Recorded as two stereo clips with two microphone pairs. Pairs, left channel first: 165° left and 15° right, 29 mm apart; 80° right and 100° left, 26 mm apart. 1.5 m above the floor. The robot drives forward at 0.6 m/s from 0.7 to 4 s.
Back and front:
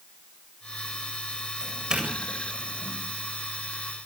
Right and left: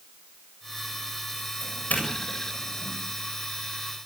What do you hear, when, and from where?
1.6 s a doorbell: 75° right, 8 m; by 2.9 s 85° right, 8 m